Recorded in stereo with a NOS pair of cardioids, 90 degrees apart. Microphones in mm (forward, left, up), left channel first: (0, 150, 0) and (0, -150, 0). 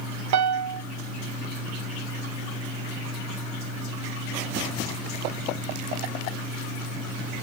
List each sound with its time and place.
0.3 s a piano: 60° right, 0.6 m